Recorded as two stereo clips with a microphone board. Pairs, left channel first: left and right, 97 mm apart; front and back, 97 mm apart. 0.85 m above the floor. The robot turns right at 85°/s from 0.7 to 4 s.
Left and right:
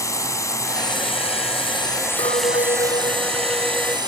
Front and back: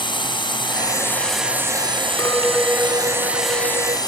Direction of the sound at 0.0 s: 35° left.